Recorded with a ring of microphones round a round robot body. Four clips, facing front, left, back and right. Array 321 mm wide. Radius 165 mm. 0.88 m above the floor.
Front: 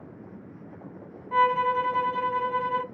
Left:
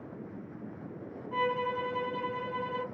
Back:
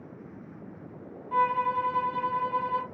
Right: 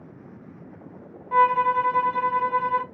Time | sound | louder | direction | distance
1.3 | a violin | right 12 dB, front 3 dB | 75° right | 0.8 m